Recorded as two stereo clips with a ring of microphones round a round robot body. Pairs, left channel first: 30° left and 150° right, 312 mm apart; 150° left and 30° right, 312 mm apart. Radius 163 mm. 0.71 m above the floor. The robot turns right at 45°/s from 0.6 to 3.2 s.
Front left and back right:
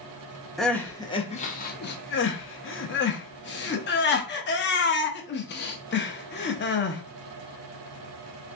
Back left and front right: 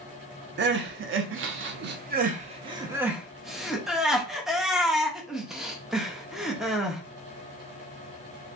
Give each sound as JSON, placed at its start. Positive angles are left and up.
{"t": 0.6, "sound": "crying", "azimuth_deg": -60, "distance_m": 0.6}